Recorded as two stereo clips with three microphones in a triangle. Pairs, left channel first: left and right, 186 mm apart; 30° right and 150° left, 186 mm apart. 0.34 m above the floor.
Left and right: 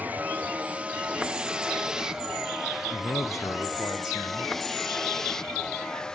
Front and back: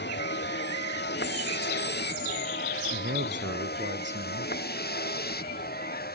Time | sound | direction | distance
0.0 | a vehicle | 10° right | ?
2.9 | a man speaking | 165° left | ?